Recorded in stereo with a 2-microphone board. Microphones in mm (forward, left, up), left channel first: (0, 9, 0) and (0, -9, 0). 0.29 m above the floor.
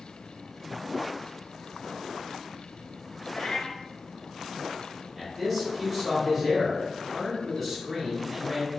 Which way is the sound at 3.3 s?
45° left (ahead or behind).